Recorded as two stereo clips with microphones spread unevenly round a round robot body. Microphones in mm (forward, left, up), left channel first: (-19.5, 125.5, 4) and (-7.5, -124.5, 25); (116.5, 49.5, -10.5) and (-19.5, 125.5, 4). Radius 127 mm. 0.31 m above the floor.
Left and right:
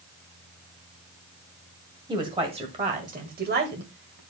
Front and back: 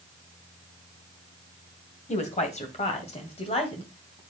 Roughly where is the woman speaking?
Ahead.